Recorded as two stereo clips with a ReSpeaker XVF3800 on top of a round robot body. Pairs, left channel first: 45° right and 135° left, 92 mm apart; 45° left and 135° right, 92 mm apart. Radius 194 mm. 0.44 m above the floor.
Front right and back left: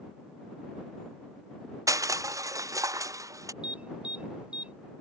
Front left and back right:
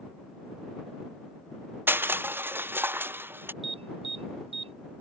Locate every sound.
1.9 s crushing: 170° left
3.6 s an alarm: 145° right